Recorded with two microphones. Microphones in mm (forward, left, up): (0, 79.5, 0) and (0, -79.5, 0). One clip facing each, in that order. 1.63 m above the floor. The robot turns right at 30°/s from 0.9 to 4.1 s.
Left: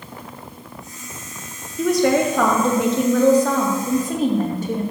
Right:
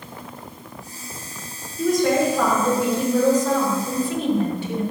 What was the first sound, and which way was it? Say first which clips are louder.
A woman speaking: left 2 dB; 70° left.